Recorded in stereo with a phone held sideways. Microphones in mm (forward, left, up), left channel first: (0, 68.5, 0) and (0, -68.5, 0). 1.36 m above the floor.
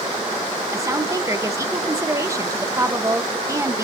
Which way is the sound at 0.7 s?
25° right (ahead or behind).